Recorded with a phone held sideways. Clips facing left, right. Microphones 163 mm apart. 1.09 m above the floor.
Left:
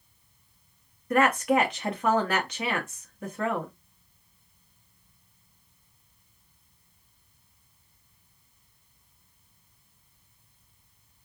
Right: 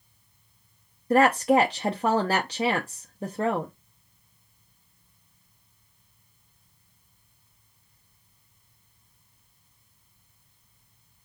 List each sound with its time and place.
1.1 s a woman speaking: 30° right (ahead or behind), 0.7 m